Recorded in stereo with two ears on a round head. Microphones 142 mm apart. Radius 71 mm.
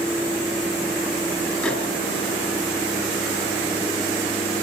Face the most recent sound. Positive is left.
turn(degrees=10)  # may be behind; listen again after turning